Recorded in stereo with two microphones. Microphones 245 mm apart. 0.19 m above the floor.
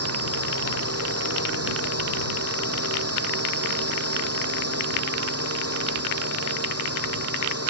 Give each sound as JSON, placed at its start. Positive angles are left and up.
{"t": 0.0, "sound": "a drone", "side_deg": -75}